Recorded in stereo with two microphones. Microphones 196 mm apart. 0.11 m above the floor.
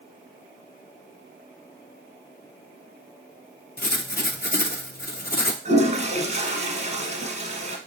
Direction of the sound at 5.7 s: 35° right (ahead or behind).